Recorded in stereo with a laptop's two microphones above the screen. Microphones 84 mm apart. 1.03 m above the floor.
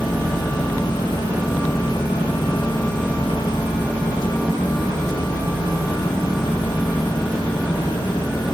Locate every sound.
0.0 s a fan: 80° left, 2.0 m